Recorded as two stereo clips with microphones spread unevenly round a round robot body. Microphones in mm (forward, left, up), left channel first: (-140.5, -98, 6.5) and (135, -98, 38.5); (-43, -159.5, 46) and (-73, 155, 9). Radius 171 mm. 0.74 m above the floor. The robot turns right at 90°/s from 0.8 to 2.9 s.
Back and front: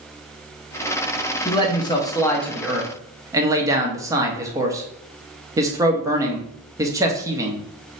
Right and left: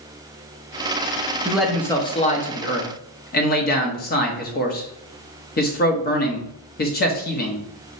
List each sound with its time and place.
1.4 s a man speaking: 155° left, 0.9 m; by 8.0 s 75° right, 0.9 m